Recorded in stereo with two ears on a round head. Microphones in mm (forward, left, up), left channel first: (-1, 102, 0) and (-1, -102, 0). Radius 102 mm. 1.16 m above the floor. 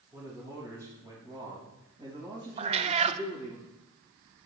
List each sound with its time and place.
0.1 s a man speaking: 15° right (ahead or behind), 5.5 m; by 3.6 s 30° right (ahead or behind), 5.5 m
2.6 s a cat meowing: 30° right (ahead or behind), 0.5 m